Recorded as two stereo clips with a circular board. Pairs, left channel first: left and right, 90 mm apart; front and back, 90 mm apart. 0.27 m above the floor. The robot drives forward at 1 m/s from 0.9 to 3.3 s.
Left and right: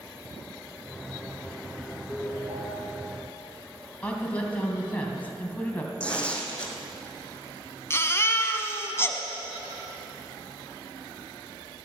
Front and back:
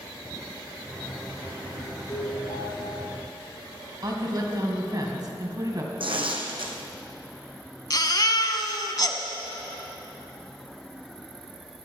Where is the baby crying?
35° left, 1.0 m.